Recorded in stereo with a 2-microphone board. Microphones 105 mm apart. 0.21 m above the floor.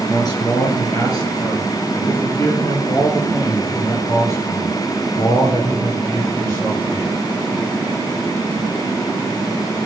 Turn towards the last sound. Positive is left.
turn(degrees=25)  # may be behind; listen again after turning